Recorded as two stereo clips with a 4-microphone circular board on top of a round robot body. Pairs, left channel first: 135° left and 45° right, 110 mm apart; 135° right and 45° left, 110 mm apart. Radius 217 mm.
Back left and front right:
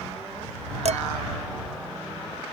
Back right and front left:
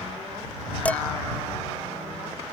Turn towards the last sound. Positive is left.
turn(degrees=-55)